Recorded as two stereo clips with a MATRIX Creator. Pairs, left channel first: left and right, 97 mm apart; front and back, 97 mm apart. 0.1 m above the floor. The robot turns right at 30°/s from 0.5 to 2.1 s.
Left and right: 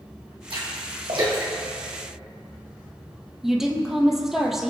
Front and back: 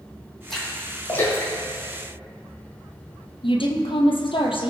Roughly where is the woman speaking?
Ahead.